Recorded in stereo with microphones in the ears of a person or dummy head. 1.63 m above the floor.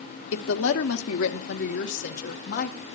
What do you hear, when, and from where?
0.3 s a woman speaking: 75° left (ahead or behind), 0.9 m; by 2.9 s 50° left (ahead or behind), 1.7 m